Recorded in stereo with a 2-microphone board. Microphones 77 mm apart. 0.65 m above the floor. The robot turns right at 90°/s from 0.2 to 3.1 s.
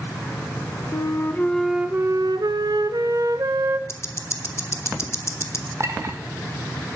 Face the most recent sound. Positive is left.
turn(degrees=-40)  # may be behind; listen again after turning